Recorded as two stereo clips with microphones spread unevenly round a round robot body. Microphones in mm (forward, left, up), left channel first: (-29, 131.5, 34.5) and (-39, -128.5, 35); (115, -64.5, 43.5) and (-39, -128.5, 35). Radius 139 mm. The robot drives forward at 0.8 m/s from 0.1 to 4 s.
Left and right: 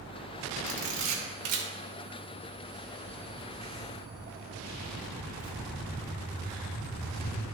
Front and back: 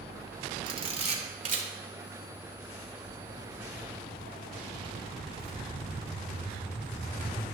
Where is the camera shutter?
100° right, 1.7 m; by 1.6 s 120° right, 1.9 m.